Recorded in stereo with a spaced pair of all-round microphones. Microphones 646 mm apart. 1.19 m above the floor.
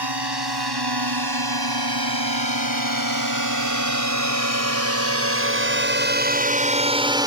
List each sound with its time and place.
0.0 s a drone: 35° right (ahead or behind); by 7.3 s 5° right (ahead or behind)